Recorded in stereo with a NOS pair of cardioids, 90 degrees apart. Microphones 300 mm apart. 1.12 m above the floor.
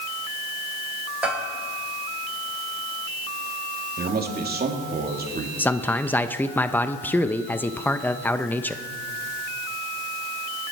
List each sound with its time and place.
1.2 s a bell: 5° right, 5.5 m
4.0 s a man speaking: 35° right, 3 m
5.6 s a man speaking: 5° left, 0.6 m